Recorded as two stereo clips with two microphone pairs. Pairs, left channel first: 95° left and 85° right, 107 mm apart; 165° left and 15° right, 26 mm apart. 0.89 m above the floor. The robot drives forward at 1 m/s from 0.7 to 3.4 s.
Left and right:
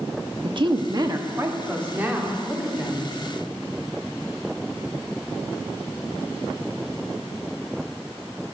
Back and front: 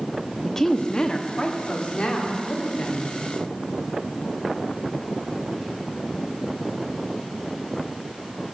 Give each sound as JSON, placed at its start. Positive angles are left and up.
{"t": 0.4, "sound": "a woman speaking", "azimuth_deg": -120, "distance_m": 1.0}